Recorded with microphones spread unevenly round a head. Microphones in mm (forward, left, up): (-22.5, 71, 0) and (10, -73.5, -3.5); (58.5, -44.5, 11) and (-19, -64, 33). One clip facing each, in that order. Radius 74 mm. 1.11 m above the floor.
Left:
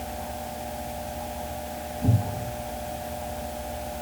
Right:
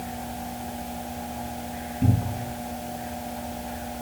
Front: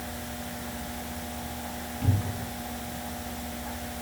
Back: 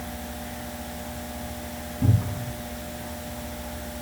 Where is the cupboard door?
115° right, 5 m.